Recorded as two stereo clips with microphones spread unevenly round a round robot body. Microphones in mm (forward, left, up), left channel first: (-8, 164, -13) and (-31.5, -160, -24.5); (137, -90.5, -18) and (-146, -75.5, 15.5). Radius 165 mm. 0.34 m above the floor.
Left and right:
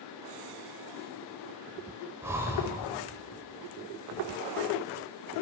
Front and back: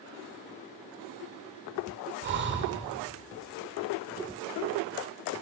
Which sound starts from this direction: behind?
Breathing, at 2.2 s.